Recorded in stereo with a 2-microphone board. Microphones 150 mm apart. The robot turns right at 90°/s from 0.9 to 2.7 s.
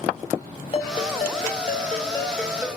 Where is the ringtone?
40° left, 0.9 m; by 2.7 s 160° right, 0.9 m.